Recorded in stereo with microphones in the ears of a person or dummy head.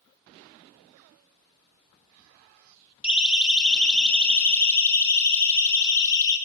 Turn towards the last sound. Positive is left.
turn(degrees=20)  # may be behind; listen again after turning